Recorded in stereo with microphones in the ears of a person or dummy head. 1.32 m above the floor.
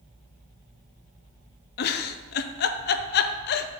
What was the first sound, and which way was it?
A giggle, 55° left (ahead or behind).